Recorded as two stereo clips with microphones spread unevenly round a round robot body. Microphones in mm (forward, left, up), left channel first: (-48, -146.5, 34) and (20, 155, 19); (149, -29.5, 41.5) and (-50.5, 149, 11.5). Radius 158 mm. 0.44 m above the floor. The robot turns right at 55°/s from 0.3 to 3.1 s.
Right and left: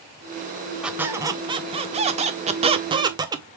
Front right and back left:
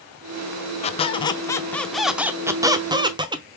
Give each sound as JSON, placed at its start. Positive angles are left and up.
{"t": 0.8, "sound": "a squeak", "azimuth_deg": 0, "distance_m": 0.5}